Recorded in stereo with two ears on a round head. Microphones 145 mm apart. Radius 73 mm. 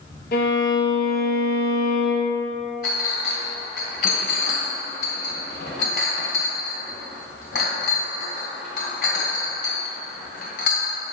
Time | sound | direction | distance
0.3 | a violin | 65° left (ahead or behind) | 1.7 m
2.8 | a clink | 65° left (ahead or behind) | 2.5 m